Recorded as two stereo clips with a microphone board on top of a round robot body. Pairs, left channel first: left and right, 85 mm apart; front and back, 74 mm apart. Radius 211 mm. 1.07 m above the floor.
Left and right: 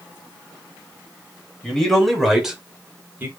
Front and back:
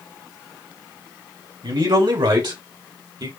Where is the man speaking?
175° left, 3 m; by 3.3 s 150° right, 1.6 m.